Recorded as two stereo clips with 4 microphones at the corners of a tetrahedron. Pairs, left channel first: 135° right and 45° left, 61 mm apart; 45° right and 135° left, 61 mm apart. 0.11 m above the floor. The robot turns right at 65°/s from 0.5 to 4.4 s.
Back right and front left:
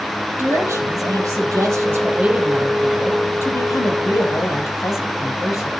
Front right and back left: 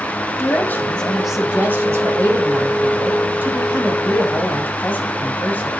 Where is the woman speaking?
Straight ahead, 3.5 m; by 5.7 s 105° right, 3.5 m.